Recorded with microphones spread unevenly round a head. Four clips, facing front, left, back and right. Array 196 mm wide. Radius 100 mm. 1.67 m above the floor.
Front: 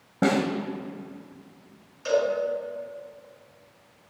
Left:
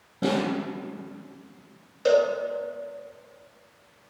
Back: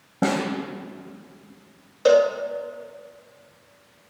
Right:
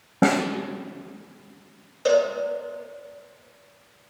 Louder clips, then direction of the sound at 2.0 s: Right 1 dB, back 7 dB; straight behind.